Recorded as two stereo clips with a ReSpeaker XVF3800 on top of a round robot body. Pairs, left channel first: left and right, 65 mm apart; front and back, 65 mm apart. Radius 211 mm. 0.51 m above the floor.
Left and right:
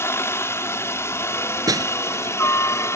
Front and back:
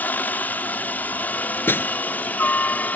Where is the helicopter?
55° left.